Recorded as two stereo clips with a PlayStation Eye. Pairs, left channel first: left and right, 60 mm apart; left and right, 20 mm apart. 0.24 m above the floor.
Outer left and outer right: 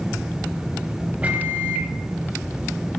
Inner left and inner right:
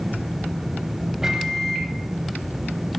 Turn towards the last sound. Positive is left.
turn(degrees=-25)  # may be behind; listen again after turning